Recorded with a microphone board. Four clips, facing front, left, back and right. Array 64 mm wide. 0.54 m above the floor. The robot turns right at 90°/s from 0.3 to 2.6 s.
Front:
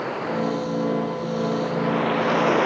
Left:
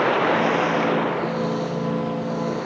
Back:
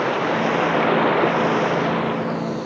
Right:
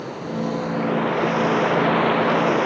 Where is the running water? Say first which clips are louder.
Left 8 dB, back 5 dB; 115° left; by 2.7 s 40° right.